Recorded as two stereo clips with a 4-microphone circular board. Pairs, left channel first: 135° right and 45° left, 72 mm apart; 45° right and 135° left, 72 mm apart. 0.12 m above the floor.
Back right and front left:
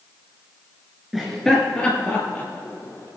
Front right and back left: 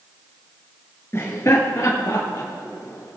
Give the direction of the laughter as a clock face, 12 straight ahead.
1 o'clock.